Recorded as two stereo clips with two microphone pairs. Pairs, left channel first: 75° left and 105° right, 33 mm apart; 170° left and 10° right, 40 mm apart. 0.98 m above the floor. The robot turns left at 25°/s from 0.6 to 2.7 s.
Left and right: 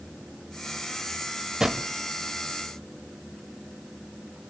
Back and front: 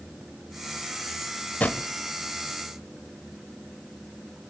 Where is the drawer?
170° right, 0.9 m; by 1.9 s straight behind, 0.9 m.